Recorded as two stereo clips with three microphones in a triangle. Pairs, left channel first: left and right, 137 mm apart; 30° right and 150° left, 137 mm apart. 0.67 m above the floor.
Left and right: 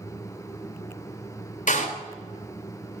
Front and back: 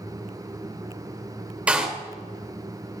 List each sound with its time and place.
1.7 s a door slam: 70° left, 1.9 m